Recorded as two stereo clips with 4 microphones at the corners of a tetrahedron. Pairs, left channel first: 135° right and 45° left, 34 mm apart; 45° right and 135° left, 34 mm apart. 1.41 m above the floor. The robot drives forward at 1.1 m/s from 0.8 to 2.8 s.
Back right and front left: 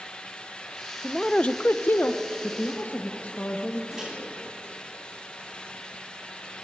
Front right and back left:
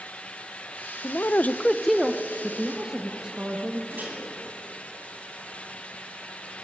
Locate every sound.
1.0 s a man speaking: 45° right, 0.7 m; by 3.8 s 160° right, 1.5 m
3.9 s a microwave: 115° left, 8.5 m